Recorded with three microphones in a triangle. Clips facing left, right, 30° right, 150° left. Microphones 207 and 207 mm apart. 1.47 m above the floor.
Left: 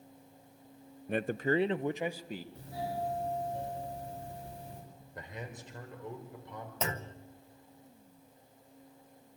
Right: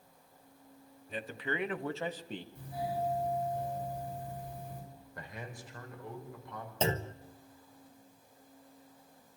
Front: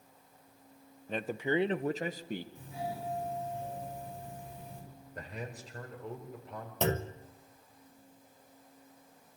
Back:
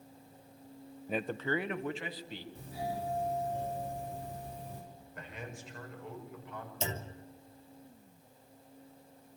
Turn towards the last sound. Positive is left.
turn(degrees=-30)